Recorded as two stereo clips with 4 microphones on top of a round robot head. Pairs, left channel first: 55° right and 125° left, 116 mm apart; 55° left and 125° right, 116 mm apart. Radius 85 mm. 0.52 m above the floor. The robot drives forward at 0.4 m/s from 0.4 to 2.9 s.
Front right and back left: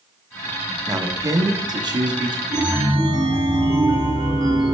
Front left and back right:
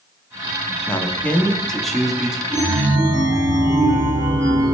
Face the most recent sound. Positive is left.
turn(degrees=175)